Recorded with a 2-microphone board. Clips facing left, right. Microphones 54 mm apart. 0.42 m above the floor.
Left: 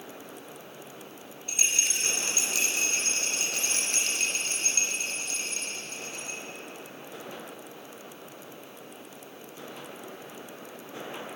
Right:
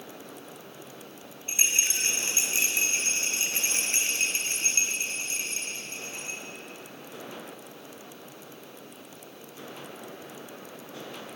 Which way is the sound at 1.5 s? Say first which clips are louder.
Right 1 dB; 30° right (ahead or behind).